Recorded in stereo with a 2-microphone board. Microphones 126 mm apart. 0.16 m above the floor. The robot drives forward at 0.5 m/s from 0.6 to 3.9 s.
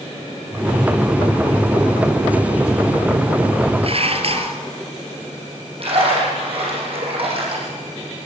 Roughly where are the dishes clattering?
Right.